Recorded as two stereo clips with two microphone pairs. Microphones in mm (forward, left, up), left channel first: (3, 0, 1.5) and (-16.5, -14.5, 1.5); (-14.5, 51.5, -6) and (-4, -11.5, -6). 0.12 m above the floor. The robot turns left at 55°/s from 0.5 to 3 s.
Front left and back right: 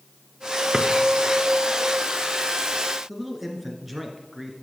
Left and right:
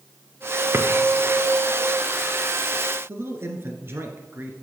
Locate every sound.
0.7 s a drawer: 85° right, 1.1 m; by 0.9 s 95° right, 1.1 m
3.1 s a man speaking: 65° right, 1.4 m